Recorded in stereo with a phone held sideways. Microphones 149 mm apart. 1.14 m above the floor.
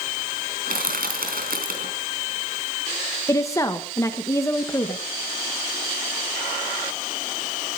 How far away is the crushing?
About 3.5 m.